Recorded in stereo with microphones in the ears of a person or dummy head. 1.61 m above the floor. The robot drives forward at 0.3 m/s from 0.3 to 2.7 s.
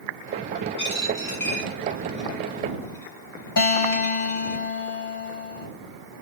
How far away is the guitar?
About 1.5 m.